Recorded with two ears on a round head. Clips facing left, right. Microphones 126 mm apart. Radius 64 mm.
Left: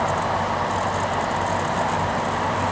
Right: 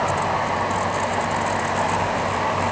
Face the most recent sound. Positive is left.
No sound to turn to.